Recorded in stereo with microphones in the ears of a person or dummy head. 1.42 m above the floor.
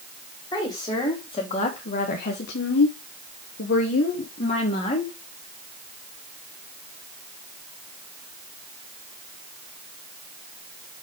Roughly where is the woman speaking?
Left.